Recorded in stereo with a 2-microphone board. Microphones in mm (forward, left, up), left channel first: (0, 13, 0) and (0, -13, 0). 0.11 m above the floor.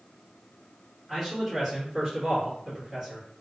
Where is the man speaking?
15° right (ahead or behind), 1.7 m; by 3.2 s 40° right (ahead or behind), 2 m.